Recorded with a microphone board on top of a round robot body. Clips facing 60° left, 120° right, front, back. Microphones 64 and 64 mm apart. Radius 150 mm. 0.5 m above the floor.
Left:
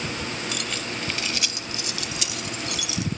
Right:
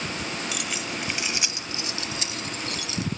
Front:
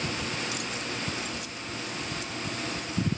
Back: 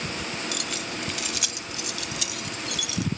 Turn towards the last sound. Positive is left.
turn(degrees=-170)